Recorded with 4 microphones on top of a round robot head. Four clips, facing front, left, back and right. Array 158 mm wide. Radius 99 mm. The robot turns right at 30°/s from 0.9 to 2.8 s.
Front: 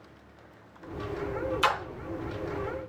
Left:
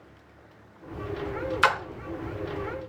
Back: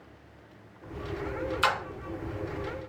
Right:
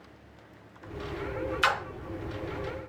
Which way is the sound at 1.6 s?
80° left.